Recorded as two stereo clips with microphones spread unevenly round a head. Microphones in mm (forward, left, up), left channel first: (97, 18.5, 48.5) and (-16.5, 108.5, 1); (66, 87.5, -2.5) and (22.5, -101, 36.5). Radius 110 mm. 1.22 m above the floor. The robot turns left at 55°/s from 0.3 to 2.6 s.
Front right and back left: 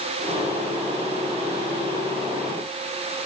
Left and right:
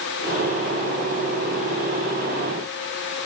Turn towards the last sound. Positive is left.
No sound to turn to.